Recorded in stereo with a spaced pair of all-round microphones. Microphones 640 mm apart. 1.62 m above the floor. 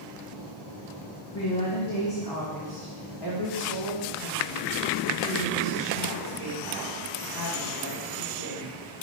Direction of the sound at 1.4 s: 25° left (ahead or behind).